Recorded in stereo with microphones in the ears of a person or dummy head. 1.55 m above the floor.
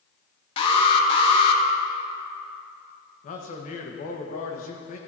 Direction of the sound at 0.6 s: 30° left (ahead or behind).